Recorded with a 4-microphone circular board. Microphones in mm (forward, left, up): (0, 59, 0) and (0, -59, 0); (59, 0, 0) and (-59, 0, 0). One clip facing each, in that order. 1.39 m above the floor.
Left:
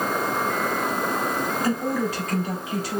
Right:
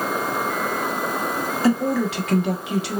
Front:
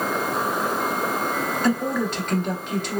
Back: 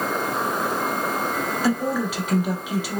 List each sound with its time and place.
1.6 s a woman speaking: 95° right, 1.1 m